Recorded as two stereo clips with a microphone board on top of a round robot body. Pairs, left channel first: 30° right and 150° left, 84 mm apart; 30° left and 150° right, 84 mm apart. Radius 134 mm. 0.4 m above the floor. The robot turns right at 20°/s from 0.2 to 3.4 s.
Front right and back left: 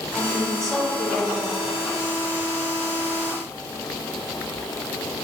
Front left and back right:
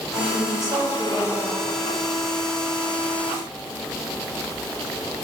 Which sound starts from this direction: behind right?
A woman speaking, at 0.1 s.